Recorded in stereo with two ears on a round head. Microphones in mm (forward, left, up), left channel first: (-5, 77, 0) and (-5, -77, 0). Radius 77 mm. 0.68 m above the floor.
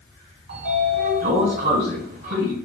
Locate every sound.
0.5 s a sliding door: 55° right (ahead or behind), 0.9 m